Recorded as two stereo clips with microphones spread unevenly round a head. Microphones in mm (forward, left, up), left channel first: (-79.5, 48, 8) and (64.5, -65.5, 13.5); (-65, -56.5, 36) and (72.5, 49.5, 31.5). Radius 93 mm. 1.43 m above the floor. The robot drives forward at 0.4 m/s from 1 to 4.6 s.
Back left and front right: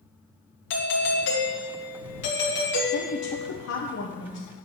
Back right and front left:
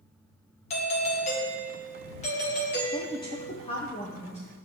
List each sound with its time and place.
0.7 s a doorbell: 160° left, 1.8 m; by 3.5 s 170° left, 2.5 m
2.9 s a woman speaking: 150° left, 0.8 m; by 4.5 s 160° left, 1.4 m